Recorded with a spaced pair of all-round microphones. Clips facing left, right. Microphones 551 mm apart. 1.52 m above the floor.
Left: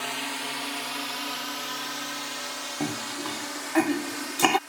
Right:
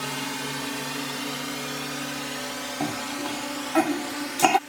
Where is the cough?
5° right (ahead or behind).